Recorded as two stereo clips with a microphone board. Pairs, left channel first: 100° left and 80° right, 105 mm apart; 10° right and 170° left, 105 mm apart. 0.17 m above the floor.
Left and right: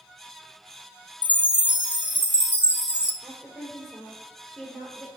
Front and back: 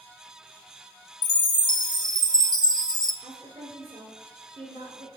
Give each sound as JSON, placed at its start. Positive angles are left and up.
{"t": 1.2, "sound": "a chime", "azimuth_deg": 25, "distance_m": 0.6}
{"t": 3.2, "sound": "a woman speaking", "azimuth_deg": -175, "distance_m": 2.5}